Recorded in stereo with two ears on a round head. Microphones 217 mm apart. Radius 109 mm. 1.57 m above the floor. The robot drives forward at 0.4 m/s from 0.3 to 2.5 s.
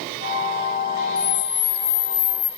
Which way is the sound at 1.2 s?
40° left (ahead or behind).